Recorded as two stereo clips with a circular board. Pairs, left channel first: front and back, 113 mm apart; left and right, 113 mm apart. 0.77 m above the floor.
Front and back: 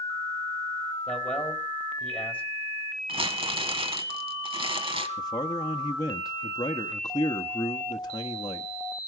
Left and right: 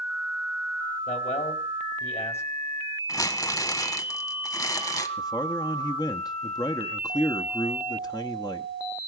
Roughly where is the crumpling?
Behind left.